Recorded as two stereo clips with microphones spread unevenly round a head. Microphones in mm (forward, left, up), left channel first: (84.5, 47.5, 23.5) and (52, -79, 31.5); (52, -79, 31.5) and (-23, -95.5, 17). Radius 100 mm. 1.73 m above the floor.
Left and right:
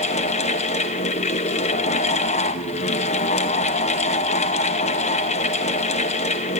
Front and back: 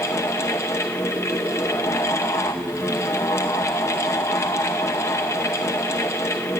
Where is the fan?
55° left, 0.8 m.